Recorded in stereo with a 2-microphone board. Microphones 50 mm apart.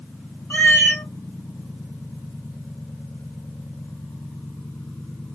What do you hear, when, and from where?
0.5 s a cat meowing: 85° left, 1.7 m